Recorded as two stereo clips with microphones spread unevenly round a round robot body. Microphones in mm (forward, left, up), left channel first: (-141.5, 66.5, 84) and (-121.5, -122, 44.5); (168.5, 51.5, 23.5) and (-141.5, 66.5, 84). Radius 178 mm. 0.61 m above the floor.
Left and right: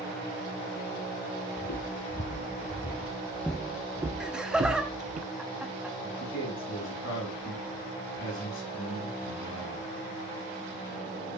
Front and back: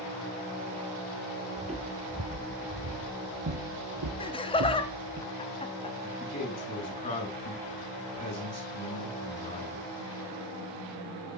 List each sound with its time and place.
1.6 s footsteps: 115° left, 1.4 m; by 5.2 s 135° right, 1.3 m
4.2 s laughter: 25° right, 0.8 m
6.0 s a man speaking: 60° left, 5 m